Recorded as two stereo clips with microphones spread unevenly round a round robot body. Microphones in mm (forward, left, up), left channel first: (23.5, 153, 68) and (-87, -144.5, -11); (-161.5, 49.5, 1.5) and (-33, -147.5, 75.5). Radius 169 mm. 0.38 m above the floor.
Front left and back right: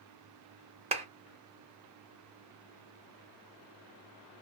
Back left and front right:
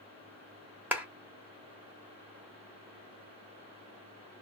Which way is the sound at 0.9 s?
155° right.